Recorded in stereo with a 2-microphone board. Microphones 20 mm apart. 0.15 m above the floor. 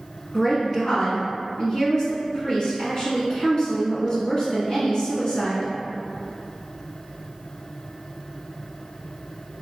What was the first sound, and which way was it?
A woman speaking, 35° left (ahead or behind).